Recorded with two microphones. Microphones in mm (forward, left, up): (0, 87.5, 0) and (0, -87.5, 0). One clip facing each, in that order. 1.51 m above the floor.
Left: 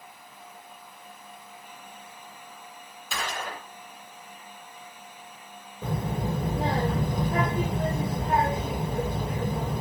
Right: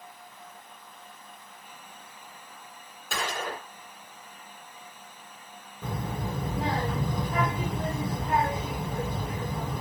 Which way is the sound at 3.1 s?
65° right (ahead or behind).